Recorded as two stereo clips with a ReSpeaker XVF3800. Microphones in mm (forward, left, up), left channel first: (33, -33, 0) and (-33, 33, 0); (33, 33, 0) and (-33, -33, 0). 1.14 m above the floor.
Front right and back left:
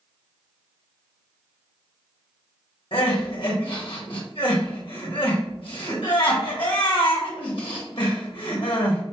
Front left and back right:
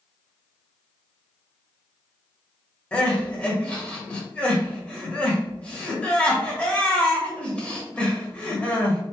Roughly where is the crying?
Ahead right.